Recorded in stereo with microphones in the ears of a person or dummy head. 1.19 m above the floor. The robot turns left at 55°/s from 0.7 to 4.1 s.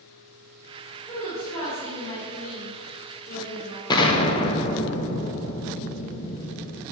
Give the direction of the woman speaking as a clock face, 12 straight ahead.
6 o'clock.